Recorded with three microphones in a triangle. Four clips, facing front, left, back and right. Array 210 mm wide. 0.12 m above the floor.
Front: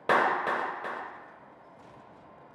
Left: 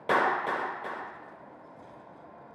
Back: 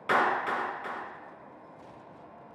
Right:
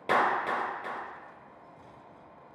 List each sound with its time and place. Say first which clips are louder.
0.1 s a clap: even, front 1 dB; 5° right, 1.7 m